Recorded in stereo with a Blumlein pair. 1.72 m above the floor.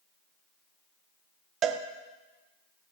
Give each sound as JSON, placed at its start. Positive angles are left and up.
{"t": 1.6, "sound": "a cowbell", "azimuth_deg": -30, "distance_m": 0.6}